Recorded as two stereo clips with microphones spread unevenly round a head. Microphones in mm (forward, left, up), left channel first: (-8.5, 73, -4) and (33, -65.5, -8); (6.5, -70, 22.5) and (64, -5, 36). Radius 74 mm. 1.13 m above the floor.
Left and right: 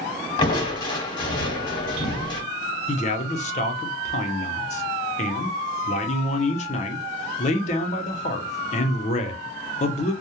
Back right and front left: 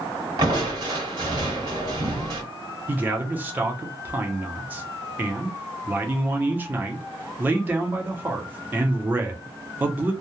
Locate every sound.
0.4 s crushing: 65° left, 1.1 m
2.9 s a man speaking: 120° left, 0.6 m